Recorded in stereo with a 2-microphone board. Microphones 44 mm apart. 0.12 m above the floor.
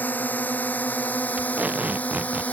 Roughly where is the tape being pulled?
Right.